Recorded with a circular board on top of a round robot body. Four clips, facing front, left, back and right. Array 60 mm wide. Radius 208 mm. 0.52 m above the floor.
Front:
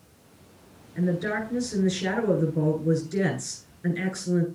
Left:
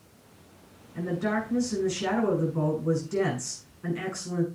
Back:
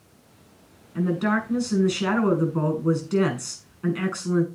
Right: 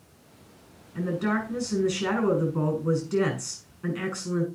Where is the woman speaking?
165° right, 6 m.